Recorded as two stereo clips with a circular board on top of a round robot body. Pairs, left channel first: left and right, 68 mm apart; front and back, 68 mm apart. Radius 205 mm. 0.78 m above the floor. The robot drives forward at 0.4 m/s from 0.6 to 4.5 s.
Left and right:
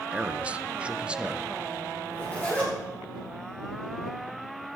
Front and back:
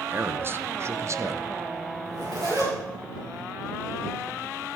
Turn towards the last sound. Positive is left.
turn(degrees=160)